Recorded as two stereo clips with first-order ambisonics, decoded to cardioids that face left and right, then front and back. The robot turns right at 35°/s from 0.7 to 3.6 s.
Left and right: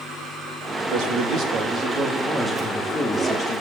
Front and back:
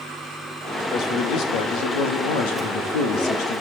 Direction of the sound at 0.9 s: 55° right.